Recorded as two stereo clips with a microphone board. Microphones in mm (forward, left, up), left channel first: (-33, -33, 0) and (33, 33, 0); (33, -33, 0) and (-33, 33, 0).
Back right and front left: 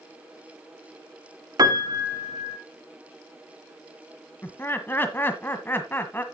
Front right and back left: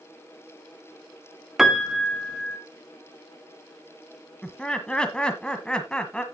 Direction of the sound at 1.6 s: 50° left.